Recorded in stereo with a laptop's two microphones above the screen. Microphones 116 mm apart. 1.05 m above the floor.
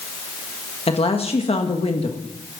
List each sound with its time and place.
0.9 s a woman speaking: 55° left (ahead or behind), 1.5 m